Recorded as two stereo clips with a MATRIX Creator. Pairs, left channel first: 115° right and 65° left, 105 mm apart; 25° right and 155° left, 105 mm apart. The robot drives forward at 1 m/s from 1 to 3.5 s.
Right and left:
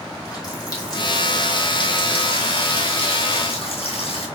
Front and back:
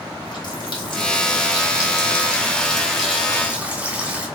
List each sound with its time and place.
0.1 s a running tap: 65° right, 2.5 m; by 4.3 s 125° right, 2.5 m